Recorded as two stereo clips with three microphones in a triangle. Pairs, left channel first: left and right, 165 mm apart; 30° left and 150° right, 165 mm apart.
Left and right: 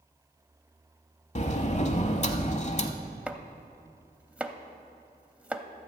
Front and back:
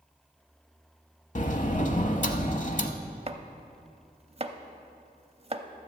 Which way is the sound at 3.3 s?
170° right.